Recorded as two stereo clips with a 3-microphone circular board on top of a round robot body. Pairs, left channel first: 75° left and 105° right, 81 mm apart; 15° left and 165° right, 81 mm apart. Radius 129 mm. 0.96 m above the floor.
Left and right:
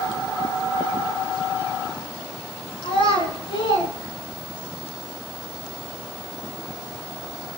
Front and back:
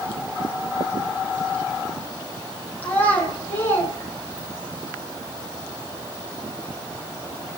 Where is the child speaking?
85° left, 9.5 m; by 4.7 s 70° left, 8.5 m.